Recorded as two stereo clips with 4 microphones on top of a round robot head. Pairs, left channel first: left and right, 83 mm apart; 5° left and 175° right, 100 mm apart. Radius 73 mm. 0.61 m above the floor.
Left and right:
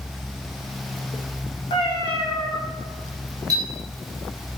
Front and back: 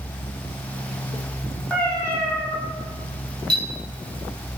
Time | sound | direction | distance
1.7 | a cat meowing | 85° left | 1.0 m
3.5 | a clink | 130° right | 1.0 m